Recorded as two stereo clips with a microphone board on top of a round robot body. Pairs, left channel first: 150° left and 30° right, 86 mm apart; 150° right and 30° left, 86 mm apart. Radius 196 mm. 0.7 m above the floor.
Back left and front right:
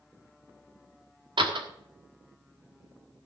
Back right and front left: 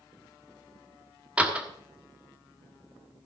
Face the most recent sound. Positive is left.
turn(degrees=-45)